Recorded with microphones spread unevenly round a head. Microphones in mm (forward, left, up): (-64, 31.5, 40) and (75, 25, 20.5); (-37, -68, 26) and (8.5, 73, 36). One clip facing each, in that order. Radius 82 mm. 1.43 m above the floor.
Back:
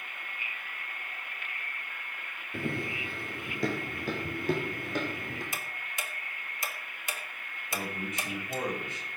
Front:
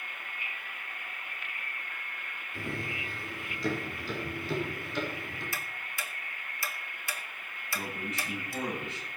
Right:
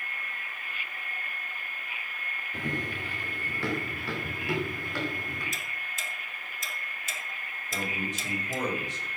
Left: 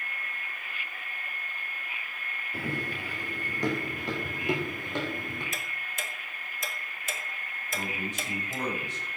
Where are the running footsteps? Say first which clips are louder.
Back 4 dB, even; 150° left, 3.5 m; by 5.4 s 140° left, 5 m.